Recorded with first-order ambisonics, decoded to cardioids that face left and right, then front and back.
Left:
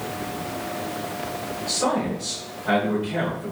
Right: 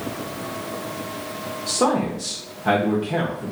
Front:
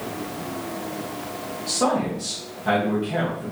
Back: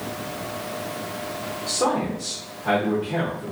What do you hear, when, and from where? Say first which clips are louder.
1.7 s a man speaking: right 3 dB, front 1 dB; 85° right, 0.7 m